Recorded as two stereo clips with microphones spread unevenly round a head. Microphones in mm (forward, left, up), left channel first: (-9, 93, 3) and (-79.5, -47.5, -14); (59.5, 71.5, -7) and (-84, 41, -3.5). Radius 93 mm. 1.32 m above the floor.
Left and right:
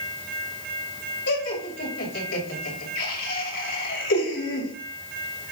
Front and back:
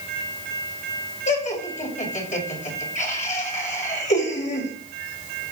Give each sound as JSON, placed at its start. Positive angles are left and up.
{"t": 1.3, "sound": "laughter", "azimuth_deg": 50, "distance_m": 6.5}